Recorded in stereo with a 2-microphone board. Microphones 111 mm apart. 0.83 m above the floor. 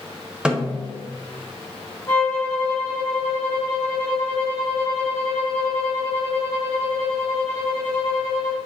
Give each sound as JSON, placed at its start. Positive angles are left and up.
{"t": 0.5, "sound": "a snare drum", "side_deg": -10, "distance_m": 1.2}
{"t": 2.1, "sound": "a violin", "side_deg": 25, "distance_m": 2.5}